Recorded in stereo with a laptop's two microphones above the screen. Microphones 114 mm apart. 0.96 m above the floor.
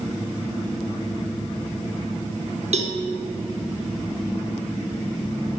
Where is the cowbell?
65° right (ahead or behind), 0.8 m.